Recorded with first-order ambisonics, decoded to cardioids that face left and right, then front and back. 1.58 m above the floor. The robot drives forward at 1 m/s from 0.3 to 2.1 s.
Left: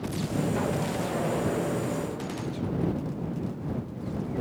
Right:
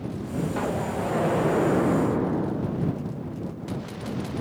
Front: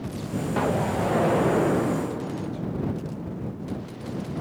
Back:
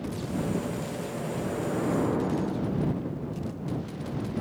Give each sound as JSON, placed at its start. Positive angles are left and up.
{"t": 0.6, "sound": "an explosion", "azimuth_deg": -15}